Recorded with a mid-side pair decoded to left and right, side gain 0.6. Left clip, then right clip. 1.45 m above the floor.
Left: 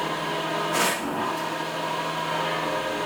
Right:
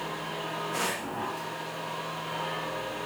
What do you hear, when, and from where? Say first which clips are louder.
0.0 s a machine running: left 7 dB; 40° left, 1.5 m